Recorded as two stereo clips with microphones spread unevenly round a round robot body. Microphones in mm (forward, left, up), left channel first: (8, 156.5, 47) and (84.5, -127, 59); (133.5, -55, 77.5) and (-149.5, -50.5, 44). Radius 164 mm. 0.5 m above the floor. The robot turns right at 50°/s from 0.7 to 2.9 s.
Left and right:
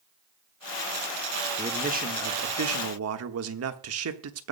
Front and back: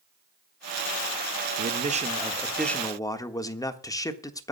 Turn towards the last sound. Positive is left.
turn(degrees=-80)